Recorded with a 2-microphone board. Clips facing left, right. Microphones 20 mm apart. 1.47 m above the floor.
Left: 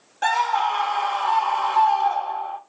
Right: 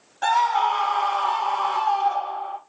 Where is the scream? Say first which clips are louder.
Right 1 dB; 5° left (ahead or behind), 1.7 m.